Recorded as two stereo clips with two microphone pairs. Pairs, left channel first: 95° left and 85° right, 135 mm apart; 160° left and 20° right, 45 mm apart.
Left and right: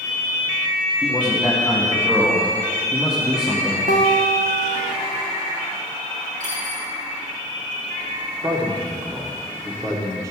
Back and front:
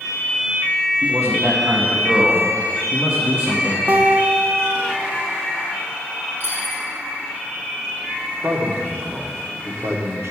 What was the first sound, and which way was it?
A man speaking, straight ahead.